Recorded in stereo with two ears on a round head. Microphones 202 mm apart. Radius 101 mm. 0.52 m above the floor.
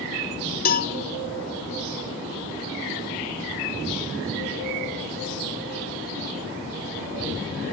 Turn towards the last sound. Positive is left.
turn(degrees=40)  # may be behind; listen again after turning